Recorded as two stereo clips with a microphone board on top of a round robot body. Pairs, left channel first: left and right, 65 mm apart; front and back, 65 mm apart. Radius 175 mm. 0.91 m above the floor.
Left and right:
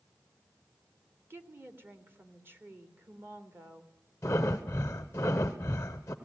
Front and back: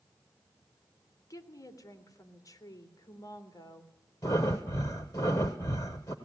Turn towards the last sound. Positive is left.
turn(degrees=45)